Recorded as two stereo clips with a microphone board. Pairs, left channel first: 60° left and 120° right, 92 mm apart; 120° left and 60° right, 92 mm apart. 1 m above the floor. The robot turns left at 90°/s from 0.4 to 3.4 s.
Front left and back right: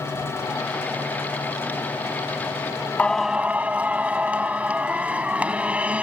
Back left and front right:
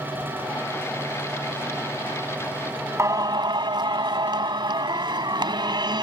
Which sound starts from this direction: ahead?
Singing, at 3.0 s.